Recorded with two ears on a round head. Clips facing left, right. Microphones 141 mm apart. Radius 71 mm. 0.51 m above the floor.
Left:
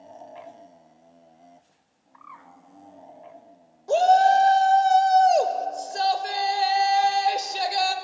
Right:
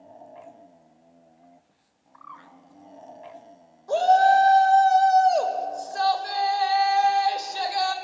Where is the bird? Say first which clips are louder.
Right 1 dB; 10° left (ahead or behind), 0.8 m.